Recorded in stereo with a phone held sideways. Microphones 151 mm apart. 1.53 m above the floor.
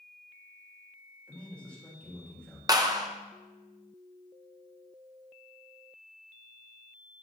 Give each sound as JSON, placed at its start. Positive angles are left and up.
{"t": 1.3, "sound": "a man speaking", "side_deg": 10, "distance_m": 3.5}
{"t": 2.7, "sound": "a clap", "side_deg": -25, "distance_m": 0.7}